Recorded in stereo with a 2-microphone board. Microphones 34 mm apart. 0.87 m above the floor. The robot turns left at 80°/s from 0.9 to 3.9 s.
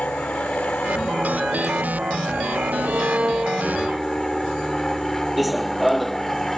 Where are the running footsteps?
5° right (ahead or behind); by 6.6 s 5° left (ahead or behind).